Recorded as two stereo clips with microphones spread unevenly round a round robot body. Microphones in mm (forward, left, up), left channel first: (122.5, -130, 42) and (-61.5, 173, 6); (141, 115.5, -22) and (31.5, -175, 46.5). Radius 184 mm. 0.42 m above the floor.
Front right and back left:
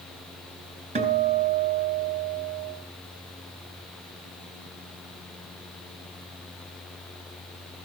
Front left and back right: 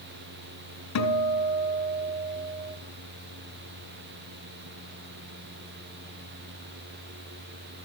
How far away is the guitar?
About 3.5 m.